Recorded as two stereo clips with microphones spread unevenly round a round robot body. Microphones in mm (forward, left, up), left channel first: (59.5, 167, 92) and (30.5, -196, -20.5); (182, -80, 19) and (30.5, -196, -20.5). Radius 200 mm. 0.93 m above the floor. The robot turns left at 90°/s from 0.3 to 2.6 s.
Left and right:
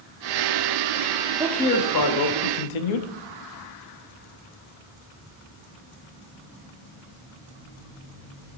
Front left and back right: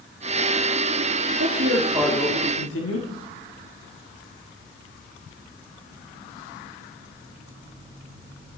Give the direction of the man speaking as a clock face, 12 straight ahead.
6 o'clock.